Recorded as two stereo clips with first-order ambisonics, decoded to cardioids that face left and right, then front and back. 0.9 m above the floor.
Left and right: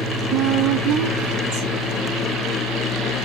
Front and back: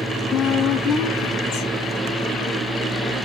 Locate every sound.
0.3 s a woman speaking: 50° right, 1.5 m